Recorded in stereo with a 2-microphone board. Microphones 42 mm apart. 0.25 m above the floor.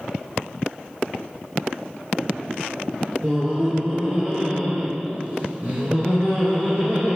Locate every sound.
3.2 s laughter: 35° right (ahead or behind), 2.5 m